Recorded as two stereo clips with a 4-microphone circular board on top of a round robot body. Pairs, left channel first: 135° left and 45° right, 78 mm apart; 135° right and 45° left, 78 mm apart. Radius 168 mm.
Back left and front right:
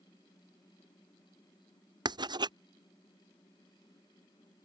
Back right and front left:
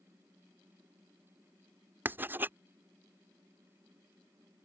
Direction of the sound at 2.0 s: 20° right.